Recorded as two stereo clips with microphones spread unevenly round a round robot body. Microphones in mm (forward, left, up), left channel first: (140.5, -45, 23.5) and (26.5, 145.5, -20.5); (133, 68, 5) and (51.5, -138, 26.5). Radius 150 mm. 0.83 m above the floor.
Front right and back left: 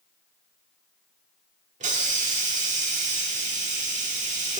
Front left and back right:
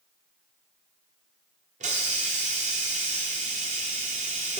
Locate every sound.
1.8 s a hiss: 170° right, 0.5 m